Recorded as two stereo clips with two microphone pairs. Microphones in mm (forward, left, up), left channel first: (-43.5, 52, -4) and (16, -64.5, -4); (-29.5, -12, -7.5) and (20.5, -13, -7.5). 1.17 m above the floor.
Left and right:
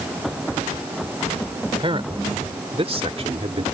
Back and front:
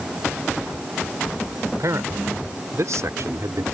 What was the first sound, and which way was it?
A man speaking, 10° right.